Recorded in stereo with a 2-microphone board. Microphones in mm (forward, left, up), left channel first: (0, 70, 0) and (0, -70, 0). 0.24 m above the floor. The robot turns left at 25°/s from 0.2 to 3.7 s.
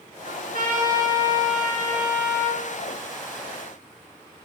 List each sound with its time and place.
0.2 s a trumpet: 80° right, 4 m; by 2.6 s 140° right, 4 m